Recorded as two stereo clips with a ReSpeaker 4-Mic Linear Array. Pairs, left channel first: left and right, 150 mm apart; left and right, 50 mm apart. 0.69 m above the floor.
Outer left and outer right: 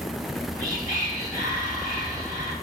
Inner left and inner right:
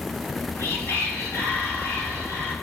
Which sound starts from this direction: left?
Whispering, at 0.2 s.